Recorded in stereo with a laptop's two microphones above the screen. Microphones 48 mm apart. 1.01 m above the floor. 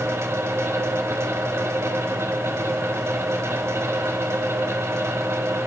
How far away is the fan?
About 0.9 m.